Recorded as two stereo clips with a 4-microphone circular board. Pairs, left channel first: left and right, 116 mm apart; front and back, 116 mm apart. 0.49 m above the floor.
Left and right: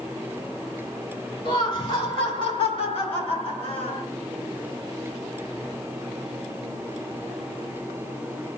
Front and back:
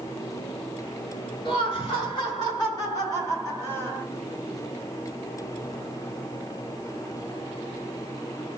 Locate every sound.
1.4 s laughter: 45° left, 3 m; by 4.0 s 70° left, 2 m